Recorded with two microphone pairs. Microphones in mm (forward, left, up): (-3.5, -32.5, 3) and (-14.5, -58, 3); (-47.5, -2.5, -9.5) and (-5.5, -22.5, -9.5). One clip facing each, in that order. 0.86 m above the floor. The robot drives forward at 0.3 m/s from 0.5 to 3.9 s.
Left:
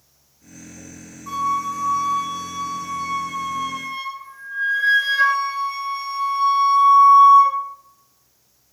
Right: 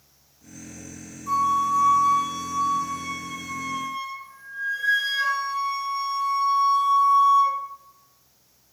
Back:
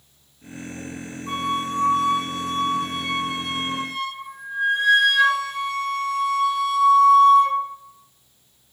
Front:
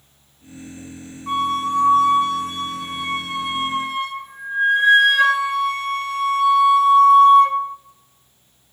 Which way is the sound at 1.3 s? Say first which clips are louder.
Right 1 dB, front 5 dB; 10° left.